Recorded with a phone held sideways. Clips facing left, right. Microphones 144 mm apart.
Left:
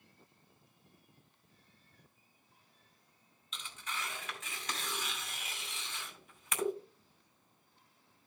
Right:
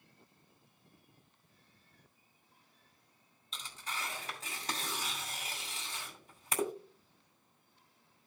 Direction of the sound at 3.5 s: 35° right (ahead or behind).